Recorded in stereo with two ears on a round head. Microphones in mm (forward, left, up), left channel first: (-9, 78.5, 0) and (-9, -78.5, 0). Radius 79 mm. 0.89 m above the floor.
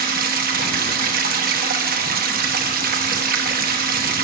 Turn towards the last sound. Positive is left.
turn(degrees=-55)  # may be behind; listen again after turning